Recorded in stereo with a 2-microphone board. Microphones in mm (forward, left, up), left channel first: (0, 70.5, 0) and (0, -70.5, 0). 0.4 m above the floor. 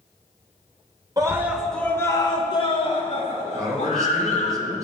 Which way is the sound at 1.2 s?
25° right (ahead or behind).